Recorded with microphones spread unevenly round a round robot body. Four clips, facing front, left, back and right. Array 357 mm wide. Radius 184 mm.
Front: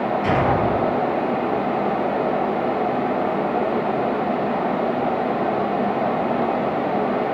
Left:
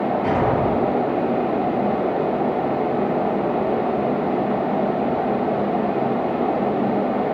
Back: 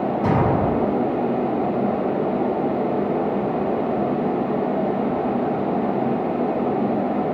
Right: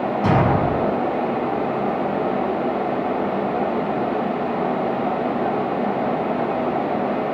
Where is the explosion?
130° right, 6.5 m.